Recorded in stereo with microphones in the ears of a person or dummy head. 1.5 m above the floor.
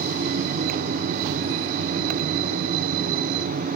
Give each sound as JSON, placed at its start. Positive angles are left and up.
{"t": 0.0, "sound": "a fan", "side_deg": -50, "distance_m": 0.9}